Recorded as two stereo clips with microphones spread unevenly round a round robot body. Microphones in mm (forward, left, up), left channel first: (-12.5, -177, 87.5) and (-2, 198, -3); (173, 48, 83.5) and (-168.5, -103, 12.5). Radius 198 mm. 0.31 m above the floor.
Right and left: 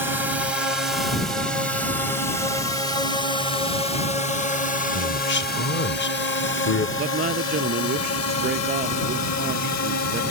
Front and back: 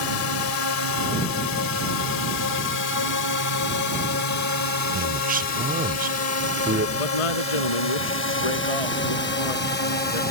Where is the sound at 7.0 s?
20° left.